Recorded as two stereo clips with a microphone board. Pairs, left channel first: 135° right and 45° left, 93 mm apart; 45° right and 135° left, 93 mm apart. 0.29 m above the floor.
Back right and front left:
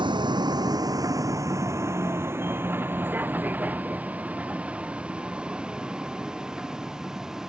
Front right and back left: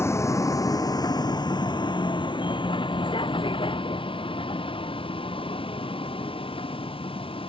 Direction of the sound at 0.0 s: 15° left.